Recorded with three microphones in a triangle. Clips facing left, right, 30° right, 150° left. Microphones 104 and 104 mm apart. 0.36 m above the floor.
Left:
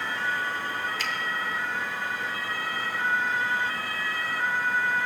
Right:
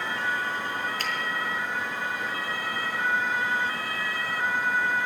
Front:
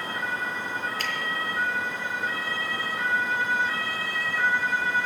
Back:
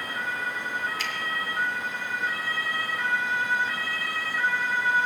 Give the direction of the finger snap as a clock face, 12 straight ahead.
2 o'clock.